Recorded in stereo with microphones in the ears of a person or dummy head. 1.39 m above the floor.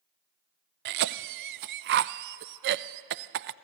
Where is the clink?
No clink in this recording.